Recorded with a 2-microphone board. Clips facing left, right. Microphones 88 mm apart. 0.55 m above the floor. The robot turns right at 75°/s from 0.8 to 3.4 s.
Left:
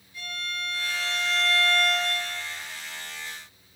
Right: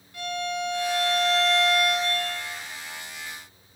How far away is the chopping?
No chopping in this recording.